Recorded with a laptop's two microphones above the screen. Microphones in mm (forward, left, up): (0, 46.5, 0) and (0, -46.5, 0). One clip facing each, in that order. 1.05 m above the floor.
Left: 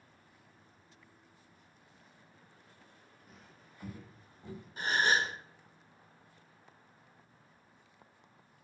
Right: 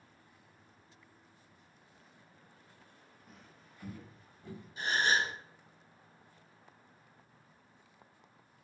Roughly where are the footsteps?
Centre.